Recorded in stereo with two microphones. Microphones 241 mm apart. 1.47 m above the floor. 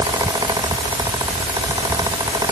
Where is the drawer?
No drawer in this recording.